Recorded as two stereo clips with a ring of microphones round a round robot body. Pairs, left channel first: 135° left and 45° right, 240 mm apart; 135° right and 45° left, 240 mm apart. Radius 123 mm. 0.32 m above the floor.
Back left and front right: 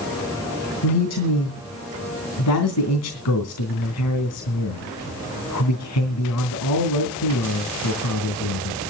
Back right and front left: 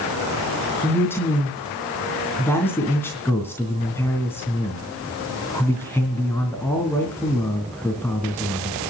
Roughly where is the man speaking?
Behind left.